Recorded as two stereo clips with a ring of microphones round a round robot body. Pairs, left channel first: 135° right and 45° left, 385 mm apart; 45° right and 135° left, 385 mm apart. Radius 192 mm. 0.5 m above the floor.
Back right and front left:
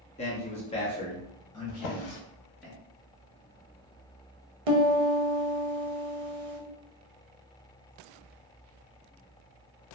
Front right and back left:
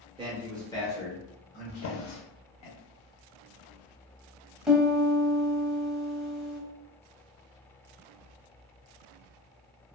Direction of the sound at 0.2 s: 175° right.